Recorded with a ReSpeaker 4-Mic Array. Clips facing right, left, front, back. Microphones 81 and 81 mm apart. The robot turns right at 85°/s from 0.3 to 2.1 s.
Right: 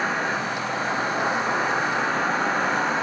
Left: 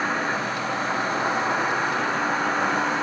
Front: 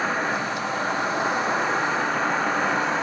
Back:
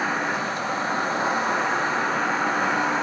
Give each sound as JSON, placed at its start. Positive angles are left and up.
{"t": 0.0, "sound": "an insect", "azimuth_deg": 110, "distance_m": 1.6}